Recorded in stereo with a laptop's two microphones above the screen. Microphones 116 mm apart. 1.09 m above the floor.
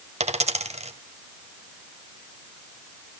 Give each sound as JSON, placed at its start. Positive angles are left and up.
{"t": 0.2, "sound": "a dropped coin", "side_deg": -70, "distance_m": 2.0}